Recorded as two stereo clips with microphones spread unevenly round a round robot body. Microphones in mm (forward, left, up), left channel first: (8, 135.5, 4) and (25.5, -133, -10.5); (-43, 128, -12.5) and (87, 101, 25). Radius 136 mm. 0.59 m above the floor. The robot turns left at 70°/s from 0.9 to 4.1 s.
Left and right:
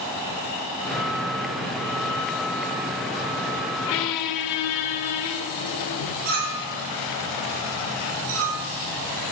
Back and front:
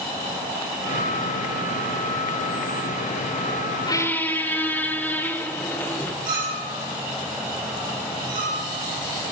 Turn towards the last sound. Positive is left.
turn(degrees=-60)